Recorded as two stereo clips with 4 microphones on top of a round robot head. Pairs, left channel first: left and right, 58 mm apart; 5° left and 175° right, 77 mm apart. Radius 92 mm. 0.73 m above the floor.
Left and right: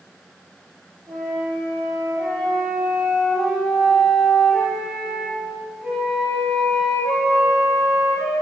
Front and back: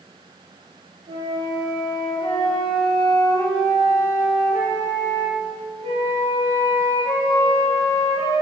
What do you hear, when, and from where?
1.1 s a flute: straight behind, 3 m